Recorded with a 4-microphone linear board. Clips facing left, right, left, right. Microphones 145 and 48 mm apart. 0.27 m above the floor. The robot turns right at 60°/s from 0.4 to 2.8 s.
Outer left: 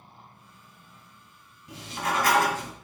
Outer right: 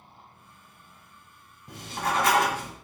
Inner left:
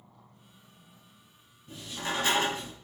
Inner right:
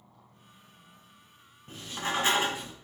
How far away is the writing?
About 1.4 m.